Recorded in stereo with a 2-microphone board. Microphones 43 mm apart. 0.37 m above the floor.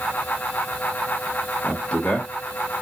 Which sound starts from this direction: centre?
A man speaking, at 1.6 s.